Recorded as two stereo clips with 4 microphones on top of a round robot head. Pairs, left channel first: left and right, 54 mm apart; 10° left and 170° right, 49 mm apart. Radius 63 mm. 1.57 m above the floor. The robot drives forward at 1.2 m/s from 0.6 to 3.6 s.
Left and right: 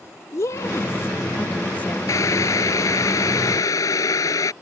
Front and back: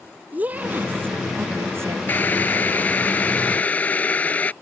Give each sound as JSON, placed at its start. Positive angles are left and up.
{"t": 0.3, "sound": "a woman speaking", "azimuth_deg": 135}
{"t": 2.1, "sound": "boiling", "azimuth_deg": 65}